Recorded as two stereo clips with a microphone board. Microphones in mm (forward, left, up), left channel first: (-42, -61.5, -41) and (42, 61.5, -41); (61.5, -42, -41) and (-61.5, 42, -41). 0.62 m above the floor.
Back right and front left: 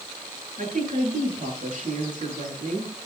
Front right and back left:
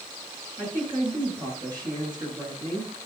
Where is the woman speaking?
85° left, 9 m.